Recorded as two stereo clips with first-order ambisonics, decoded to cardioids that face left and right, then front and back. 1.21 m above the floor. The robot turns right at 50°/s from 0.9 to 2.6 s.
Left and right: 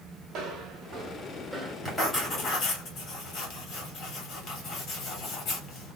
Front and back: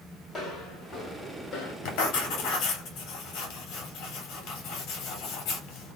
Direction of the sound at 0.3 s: 65° right.